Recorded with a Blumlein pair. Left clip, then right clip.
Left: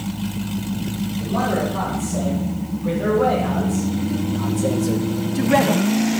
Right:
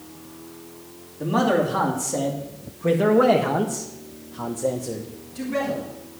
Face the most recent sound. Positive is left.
turn(degrees=65)